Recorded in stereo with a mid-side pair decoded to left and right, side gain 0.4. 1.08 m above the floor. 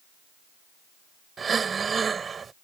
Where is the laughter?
I don't hear laughter.